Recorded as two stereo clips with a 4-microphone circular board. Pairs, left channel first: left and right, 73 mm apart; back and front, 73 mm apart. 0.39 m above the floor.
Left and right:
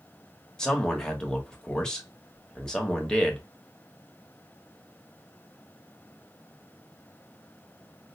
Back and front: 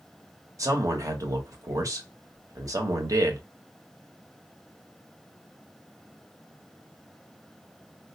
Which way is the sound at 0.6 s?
15° left.